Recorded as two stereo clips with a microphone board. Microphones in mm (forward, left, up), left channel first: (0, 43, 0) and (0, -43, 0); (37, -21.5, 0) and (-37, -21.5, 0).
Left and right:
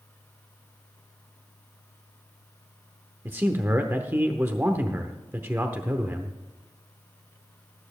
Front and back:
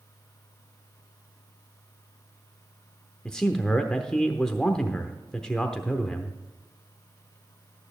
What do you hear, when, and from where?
3.2 s a man speaking: 65° right, 0.8 m